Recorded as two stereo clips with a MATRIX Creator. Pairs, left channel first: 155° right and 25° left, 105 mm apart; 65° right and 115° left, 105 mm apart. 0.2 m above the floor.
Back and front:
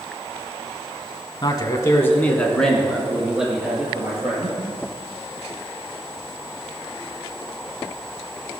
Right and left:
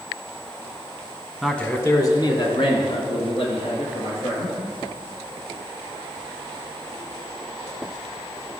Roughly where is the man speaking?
Behind right.